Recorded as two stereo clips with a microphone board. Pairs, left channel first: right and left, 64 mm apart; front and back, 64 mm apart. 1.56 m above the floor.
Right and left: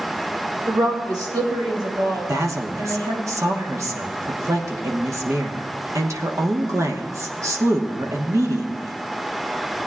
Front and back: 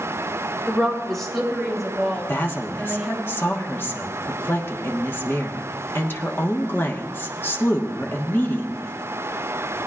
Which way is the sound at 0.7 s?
80° left.